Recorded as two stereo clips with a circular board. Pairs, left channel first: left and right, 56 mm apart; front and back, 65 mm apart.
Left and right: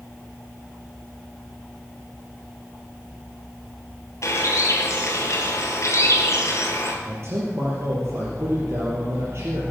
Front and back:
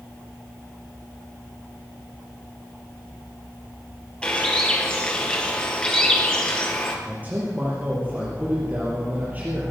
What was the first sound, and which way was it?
A bird, 70° left.